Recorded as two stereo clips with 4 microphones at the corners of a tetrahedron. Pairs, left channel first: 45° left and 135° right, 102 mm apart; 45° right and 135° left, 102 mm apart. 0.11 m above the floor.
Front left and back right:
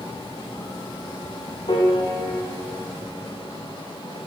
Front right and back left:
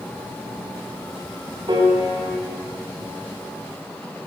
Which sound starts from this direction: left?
A piano, at 1.7 s.